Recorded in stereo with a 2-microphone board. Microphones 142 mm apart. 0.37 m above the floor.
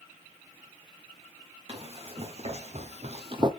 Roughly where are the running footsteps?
Right.